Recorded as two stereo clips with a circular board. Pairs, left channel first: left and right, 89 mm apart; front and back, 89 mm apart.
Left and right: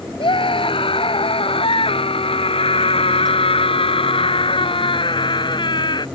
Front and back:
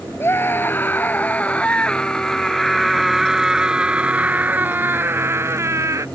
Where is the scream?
65° left; by 6.1 s 125° left.